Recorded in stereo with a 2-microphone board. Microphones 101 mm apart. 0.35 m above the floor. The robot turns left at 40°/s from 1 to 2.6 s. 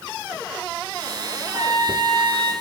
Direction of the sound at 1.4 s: 30° right.